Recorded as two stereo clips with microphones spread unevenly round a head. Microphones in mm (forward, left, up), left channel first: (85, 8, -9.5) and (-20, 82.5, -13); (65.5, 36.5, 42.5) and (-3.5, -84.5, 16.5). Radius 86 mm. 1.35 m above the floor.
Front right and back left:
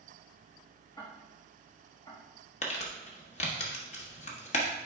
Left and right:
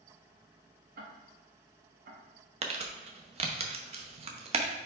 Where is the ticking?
105° right, 1.4 m.